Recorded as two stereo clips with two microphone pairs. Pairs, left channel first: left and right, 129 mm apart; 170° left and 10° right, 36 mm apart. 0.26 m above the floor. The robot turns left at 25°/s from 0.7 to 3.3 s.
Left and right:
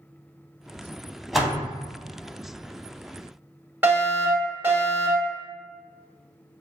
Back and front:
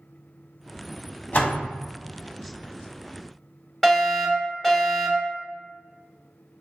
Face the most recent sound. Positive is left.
turn(degrees=-135)